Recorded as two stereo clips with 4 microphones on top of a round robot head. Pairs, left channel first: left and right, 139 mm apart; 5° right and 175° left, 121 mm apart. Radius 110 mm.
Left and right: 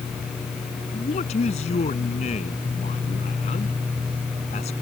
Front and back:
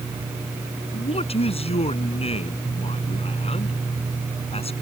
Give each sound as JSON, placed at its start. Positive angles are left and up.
{"t": 0.9, "sound": "a man speaking", "azimuth_deg": 35}